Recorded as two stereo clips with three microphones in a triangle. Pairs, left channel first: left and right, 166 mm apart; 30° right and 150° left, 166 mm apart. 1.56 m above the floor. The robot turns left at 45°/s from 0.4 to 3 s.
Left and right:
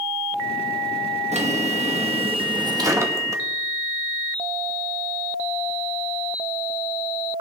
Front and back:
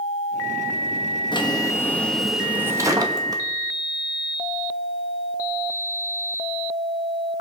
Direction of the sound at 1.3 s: 75° right.